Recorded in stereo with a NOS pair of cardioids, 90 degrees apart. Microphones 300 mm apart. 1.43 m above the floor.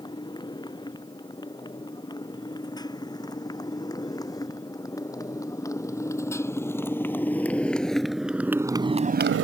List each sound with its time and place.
0.0 s a motorcycle: 15° left; by 9.4 s 60° right